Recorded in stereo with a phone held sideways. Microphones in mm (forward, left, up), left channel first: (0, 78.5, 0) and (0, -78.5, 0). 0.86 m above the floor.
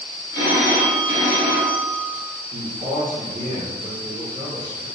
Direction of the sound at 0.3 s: 80° right.